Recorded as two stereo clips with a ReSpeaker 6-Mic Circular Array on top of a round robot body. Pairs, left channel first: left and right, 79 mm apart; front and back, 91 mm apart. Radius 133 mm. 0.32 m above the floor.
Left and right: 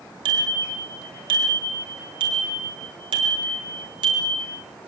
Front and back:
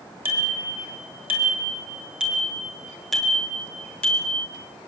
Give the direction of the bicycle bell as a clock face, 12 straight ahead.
4 o'clock.